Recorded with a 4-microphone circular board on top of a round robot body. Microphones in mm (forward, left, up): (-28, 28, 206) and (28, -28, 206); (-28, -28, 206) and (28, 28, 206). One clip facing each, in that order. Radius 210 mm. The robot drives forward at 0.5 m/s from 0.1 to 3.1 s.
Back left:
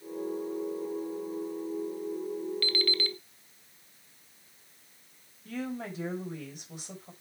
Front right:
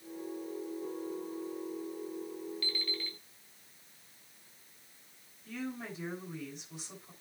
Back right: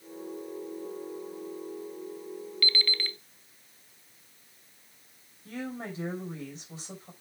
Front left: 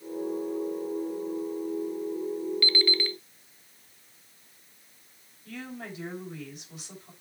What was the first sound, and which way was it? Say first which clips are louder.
An alarm clock: back left 9 dB, front left 5 dB; 110° left.